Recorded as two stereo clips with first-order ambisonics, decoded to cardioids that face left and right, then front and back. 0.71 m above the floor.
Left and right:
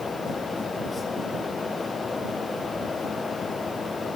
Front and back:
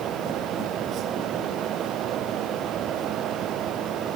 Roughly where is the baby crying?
I don't hear a baby crying.